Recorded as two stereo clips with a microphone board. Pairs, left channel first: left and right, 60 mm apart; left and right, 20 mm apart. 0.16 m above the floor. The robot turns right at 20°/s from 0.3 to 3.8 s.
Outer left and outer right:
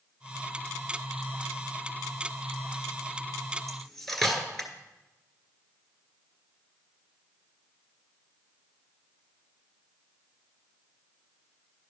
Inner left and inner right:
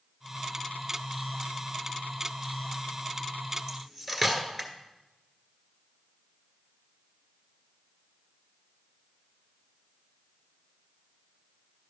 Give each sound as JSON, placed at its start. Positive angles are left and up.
{"t": 3.7, "sound": "cutlery clinking", "side_deg": 5, "distance_m": 1.4}